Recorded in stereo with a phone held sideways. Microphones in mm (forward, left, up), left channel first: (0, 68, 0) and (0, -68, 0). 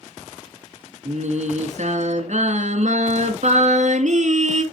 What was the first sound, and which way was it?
Singing, 60° right (ahead or behind).